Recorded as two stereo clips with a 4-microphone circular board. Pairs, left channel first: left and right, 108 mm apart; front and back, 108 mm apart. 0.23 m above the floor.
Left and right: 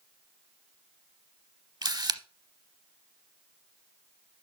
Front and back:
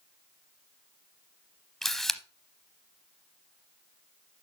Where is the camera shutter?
85° right, 0.7 m.